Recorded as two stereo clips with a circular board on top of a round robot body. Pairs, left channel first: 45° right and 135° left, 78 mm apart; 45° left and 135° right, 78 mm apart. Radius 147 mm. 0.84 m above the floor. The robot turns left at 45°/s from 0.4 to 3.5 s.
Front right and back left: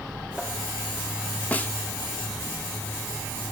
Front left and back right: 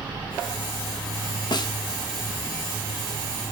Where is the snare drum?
30° left, 0.8 m; by 1.7 s 20° left, 0.8 m.